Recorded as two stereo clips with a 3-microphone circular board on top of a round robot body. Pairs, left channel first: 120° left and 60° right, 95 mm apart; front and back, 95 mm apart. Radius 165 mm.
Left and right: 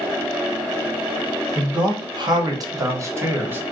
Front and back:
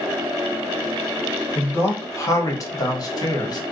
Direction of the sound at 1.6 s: 60° right.